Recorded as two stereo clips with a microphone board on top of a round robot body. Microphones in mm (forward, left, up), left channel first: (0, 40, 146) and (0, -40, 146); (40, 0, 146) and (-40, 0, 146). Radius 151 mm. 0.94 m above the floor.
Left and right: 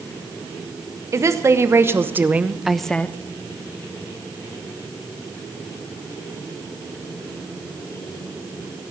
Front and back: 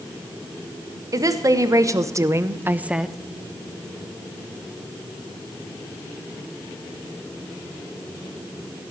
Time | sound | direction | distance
1.1 | a woman speaking | 140° right | 1.7 m